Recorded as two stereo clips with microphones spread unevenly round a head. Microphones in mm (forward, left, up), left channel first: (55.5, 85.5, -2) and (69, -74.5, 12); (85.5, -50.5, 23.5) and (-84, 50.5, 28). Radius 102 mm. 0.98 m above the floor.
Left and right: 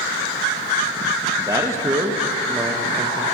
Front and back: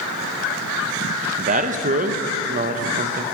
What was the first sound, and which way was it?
A man speaking, 165° right.